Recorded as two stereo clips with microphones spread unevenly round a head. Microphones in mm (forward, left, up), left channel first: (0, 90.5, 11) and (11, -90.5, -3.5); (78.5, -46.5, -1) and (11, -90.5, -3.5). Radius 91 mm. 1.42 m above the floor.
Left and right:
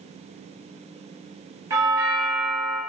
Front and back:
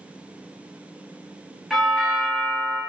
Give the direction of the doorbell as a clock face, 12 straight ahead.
2 o'clock.